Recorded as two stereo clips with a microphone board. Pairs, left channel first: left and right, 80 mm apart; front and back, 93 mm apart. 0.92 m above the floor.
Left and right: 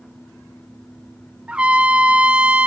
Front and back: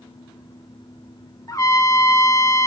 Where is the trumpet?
20° right, 1.0 m.